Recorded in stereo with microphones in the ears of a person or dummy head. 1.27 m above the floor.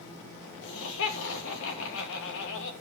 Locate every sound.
0.6 s laughter: 70° left (ahead or behind), 2 m